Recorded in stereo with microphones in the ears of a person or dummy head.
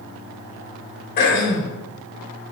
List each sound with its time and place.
1.2 s throat clearing: 45° left (ahead or behind), 1.8 m